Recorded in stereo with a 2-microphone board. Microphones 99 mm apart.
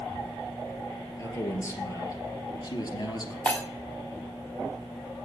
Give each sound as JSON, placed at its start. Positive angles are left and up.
{"t": 1.2, "sound": "a man speaking", "side_deg": 30, "distance_m": 3.0}
{"t": 3.5, "sound": "breaking glass", "side_deg": 15, "distance_m": 2.5}